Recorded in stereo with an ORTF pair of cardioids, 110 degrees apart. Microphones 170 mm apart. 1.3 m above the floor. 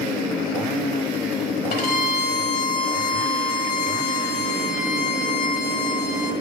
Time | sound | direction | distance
1.7 | a violin | 60° left | 1.4 m